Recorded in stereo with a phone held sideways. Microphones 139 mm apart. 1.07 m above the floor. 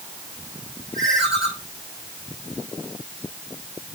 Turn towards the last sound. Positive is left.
turn(degrees=0)  # may be behind; listen again after turning